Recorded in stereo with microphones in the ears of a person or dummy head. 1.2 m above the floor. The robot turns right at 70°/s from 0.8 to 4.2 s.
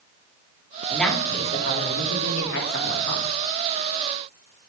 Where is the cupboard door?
No cupboard door in this recording.